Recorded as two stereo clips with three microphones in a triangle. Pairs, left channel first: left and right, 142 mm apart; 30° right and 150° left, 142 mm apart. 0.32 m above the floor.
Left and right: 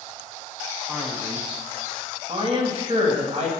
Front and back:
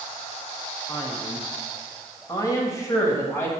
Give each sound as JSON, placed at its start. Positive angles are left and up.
{"t": 0.9, "sound": "a man speaking", "azimuth_deg": -20, "distance_m": 1.4}